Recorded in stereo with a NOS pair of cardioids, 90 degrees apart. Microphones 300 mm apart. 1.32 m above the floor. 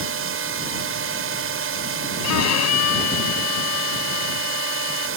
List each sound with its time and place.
0.0 s a drone: 50° right
2.2 s a violin: 70° left